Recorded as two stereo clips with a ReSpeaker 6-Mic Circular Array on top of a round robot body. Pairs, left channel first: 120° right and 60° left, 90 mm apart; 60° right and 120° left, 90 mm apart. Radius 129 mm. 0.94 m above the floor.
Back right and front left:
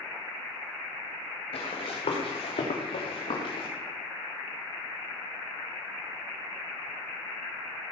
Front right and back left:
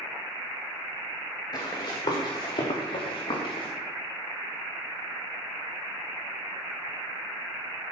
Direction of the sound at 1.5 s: 105° right.